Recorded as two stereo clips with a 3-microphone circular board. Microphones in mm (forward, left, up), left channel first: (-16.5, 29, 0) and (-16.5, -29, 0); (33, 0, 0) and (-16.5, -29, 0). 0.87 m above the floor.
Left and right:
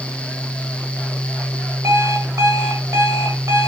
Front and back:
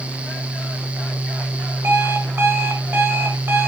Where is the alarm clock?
105° right, 1.8 m.